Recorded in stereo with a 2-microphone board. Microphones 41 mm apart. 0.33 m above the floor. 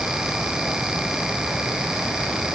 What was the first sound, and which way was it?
Only background noise.